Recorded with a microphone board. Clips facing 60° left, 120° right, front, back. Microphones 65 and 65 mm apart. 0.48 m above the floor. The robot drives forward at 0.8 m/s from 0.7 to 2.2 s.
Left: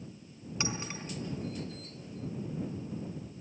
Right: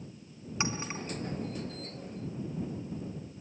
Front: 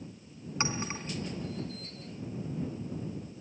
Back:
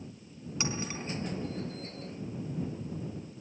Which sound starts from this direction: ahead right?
A clink, at 0.6 s.